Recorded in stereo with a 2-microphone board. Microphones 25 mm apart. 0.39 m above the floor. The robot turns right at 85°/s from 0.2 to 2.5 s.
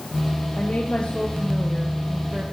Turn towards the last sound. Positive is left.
turn(degrees=-110)